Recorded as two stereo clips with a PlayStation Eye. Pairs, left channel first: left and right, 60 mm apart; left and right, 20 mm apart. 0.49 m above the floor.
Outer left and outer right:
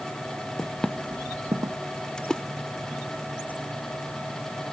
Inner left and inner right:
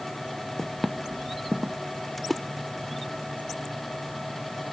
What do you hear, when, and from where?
0.6 s footsteps: 35° left (ahead or behind); by 1.8 s 65° right (ahead or behind)
2.2 s a splash: 15° left (ahead or behind)